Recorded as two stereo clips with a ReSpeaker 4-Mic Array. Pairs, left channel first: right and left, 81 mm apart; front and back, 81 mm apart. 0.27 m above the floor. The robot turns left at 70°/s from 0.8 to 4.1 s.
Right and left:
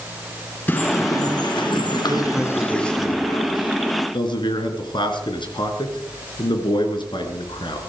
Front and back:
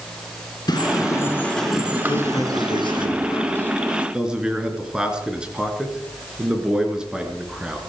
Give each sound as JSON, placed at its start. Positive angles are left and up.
{"t": 0.7, "sound": "a bird", "azimuth_deg": -25, "distance_m": 4.0}
{"t": 2.1, "sound": "a man speaking", "azimuth_deg": 40, "distance_m": 3.5}